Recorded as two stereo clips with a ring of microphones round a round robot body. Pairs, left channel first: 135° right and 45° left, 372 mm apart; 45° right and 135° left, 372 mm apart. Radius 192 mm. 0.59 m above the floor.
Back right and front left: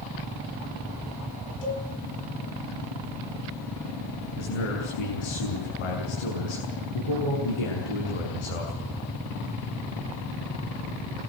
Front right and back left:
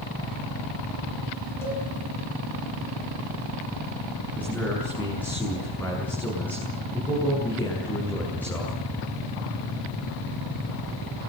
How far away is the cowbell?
About 5.5 m.